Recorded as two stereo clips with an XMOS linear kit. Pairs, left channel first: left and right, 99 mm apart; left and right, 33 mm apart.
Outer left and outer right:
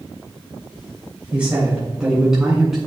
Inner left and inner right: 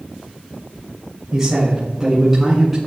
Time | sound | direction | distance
1.3 | a man speaking | 15° right (ahead or behind) | 2 m